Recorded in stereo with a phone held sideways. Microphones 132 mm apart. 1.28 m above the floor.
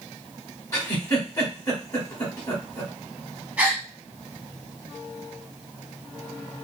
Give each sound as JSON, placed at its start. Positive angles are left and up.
{"t": 0.7, "sound": "a giggle", "side_deg": 25, "distance_m": 1.2}
{"t": 3.6, "sound": "a gasp", "side_deg": -10, "distance_m": 0.7}